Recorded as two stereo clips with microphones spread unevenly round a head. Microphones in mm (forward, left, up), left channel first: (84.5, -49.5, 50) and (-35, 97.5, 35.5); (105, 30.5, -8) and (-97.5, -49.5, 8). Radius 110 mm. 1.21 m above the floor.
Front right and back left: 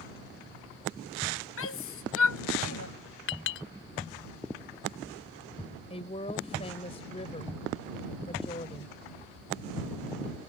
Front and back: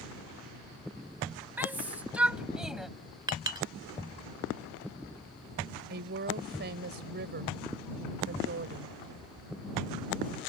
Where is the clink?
85° right.